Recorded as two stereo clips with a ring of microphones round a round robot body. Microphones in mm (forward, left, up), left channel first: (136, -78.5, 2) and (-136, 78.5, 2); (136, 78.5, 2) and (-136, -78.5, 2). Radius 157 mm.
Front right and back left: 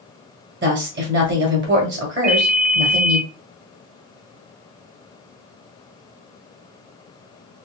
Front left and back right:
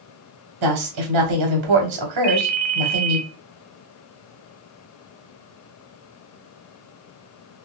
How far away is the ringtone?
About 0.7 m.